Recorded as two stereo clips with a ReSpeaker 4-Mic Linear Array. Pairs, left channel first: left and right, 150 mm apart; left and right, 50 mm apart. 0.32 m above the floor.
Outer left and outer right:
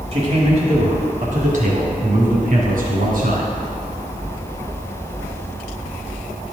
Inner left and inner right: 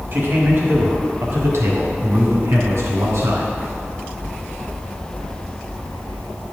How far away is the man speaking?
About 1.5 m.